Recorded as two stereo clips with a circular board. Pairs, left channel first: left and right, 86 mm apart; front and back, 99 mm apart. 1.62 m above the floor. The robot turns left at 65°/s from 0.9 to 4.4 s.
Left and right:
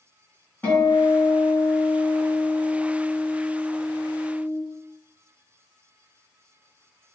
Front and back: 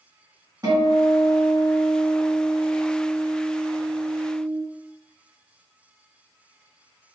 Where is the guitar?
150° left, 1.7 m; by 4.6 s 80° right, 1.7 m.